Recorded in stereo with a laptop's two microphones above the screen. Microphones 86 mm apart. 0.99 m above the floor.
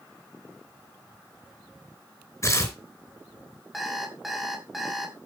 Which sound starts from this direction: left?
Tearing paper, at 2.4 s.